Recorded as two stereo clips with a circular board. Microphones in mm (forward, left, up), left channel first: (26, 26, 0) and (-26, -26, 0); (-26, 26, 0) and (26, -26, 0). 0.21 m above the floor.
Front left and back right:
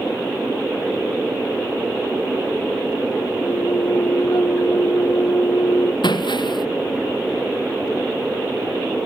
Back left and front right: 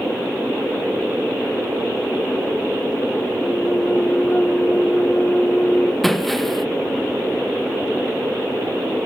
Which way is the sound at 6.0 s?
45° left.